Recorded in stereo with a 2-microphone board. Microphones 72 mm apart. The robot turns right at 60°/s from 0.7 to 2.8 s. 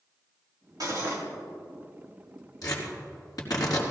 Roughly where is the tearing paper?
Left.